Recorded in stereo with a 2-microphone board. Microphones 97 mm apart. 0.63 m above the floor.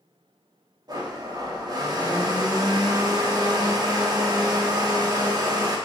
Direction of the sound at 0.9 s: 45° right (ahead or behind).